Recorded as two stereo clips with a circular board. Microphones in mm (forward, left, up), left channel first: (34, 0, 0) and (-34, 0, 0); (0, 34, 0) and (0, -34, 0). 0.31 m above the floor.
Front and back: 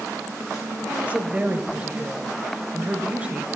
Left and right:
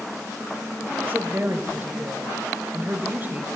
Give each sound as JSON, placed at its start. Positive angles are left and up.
{"t": 0.9, "sound": "a woman speaking", "azimuth_deg": -125, "distance_m": 1.0}